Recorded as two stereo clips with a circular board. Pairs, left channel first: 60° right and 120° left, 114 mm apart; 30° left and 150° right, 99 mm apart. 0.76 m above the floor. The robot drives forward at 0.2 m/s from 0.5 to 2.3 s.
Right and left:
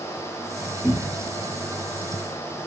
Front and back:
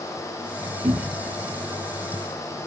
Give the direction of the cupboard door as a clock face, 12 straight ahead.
4 o'clock.